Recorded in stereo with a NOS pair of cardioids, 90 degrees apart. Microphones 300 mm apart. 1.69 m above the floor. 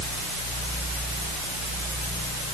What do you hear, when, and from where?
Only background noise.